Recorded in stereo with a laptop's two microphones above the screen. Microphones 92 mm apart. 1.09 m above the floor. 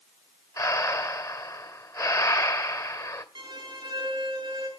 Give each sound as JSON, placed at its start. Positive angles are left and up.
{"t": 0.6, "sound": "breathing", "side_deg": 40, "distance_m": 2.0}
{"t": 3.4, "sound": "a violin", "side_deg": -50, "distance_m": 9.0}